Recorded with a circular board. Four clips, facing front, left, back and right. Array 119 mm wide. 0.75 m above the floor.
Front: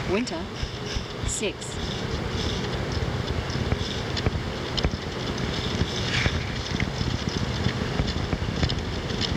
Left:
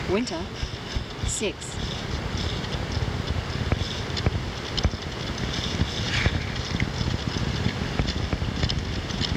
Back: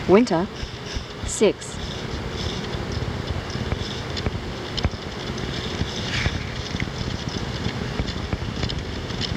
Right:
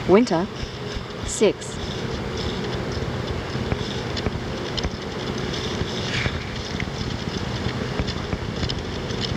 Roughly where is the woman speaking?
Behind right.